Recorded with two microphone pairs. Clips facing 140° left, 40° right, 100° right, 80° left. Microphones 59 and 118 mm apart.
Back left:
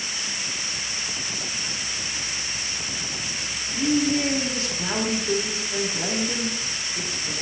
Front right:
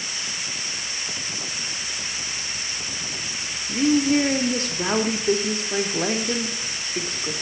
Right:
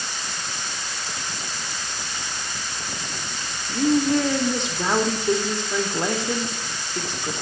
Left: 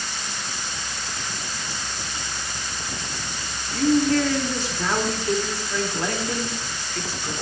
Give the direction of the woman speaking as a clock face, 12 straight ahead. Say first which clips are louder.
Front right 3 dB, even; 1 o'clock.